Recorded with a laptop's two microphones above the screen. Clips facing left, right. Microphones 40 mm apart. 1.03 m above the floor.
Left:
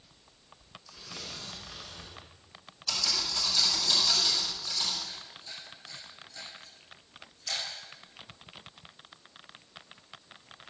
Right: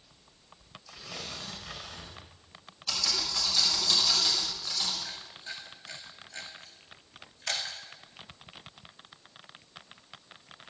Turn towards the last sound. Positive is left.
turn(degrees=-65)  # may be behind; listen again after turning